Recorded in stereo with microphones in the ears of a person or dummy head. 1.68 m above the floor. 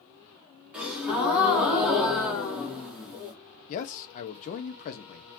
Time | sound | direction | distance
0.7 | a gasp | 10° right (ahead or behind) | 1.3 m
3.7 | a man speaking | 35° left (ahead or behind) | 0.8 m